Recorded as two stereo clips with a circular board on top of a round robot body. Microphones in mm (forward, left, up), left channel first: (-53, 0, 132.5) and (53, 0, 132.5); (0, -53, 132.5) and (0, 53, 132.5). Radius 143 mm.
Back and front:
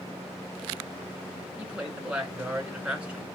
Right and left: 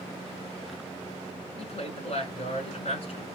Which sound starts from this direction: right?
A woman speaking, at 1.6 s.